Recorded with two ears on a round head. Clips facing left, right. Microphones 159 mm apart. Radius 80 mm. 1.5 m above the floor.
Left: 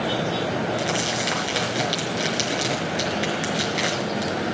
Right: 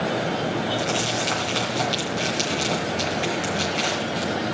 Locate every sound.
0.8 s crumpling: 10° left (ahead or behind), 4.5 m